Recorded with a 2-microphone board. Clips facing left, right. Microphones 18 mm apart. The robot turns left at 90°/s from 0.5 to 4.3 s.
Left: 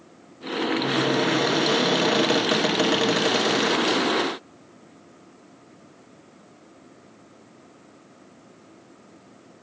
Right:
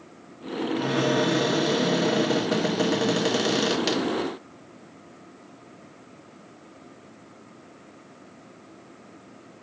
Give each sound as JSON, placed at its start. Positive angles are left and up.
{"t": 0.8, "sound": "a cupboard door", "azimuth_deg": -130, "distance_m": 1.6}